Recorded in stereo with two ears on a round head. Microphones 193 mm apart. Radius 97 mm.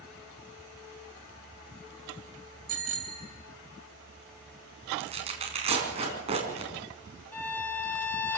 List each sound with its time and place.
2.7 s a bicycle bell: 45° right (ahead or behind), 3.5 m
5.0 s tearing paper: 30° right (ahead or behind), 4.5 m
7.3 s a violin: 10° left (ahead or behind), 1.0 m